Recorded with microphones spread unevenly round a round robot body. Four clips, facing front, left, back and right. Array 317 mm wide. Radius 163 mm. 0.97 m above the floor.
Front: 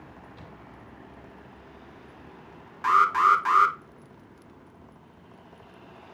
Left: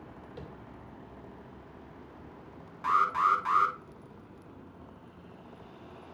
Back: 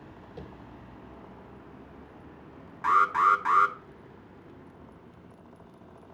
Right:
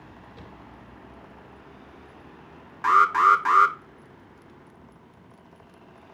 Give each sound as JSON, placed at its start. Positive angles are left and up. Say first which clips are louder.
{"t": 0.4, "sound": "tapping", "louder": "left 2 dB, back 4 dB", "azimuth_deg": 155, "distance_m": 2.5}
{"t": 2.8, "sound": "an alarm", "louder": "right 8 dB, front 2 dB", "azimuth_deg": -90, "distance_m": 2.0}